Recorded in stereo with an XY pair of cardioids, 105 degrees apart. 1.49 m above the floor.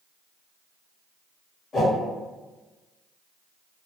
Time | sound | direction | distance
1.7 | a whoosh | 45° left | 1.0 m